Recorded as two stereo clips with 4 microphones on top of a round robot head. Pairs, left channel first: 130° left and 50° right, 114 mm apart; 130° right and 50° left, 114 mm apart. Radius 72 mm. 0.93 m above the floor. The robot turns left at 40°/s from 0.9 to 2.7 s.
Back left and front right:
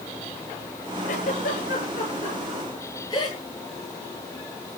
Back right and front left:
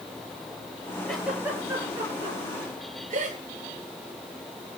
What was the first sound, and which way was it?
A giggle, 140° left.